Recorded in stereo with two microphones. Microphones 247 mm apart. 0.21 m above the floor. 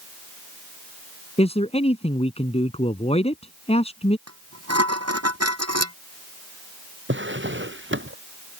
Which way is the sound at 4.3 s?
80° right.